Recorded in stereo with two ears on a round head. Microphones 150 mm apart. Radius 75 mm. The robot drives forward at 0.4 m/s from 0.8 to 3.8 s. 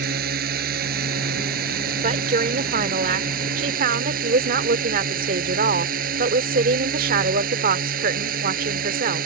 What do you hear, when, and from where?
0.0 s a drone: 60° right (ahead or behind); by 9.3 s 55° right (ahead or behind)
2.0 s a woman speaking: 50° right (ahead or behind); by 9.3 s 55° right (ahead or behind)